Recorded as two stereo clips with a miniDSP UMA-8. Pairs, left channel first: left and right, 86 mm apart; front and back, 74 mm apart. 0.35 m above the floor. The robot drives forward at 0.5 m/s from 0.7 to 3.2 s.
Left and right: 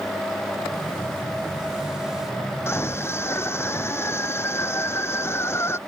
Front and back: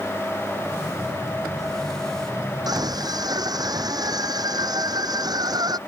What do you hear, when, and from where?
2.7 s a scream: 150° left